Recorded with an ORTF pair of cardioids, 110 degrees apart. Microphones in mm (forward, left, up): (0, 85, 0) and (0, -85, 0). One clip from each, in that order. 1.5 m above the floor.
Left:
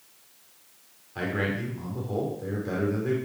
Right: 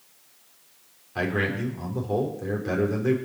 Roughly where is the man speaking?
Ahead right.